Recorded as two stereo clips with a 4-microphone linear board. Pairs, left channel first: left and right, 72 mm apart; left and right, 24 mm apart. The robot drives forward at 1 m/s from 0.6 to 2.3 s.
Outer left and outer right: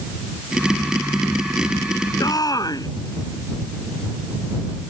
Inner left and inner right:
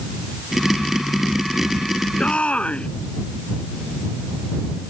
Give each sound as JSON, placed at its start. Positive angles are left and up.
{"t": 2.2, "sound": "a shout", "side_deg": 60}